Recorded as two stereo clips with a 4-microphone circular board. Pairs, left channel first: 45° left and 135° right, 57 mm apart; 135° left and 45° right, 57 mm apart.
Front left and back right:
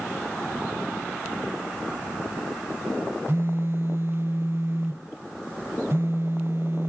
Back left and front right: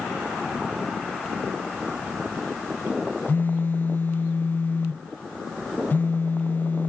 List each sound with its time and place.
3.3 s a phone buzzing: 175° right, 0.6 m